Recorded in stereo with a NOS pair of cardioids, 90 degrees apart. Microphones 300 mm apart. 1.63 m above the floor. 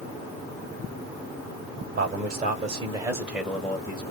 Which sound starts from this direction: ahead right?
A man speaking, at 2.0 s.